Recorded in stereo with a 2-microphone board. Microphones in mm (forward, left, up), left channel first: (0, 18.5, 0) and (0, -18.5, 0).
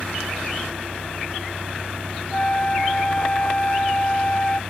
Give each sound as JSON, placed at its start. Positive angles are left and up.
{"t": 0.0, "sound": "a vehicle", "side_deg": -75}
{"t": 2.3, "sound": "a flute", "side_deg": 30}